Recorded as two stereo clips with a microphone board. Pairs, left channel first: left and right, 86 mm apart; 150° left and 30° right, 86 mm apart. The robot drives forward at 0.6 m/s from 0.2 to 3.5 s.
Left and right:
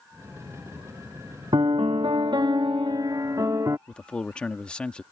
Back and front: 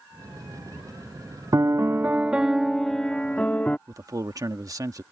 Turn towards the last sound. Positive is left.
turn(degrees=10)